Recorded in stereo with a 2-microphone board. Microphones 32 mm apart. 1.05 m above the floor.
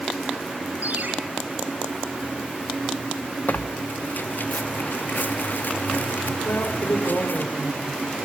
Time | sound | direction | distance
0.8 | a ringtone | 50° right (ahead or behind) | 5.5 m
3.5 | tearing paper | 65° left (ahead or behind) | 1.4 m
6.5 | a woman speaking | 70° left (ahead or behind) | 4.5 m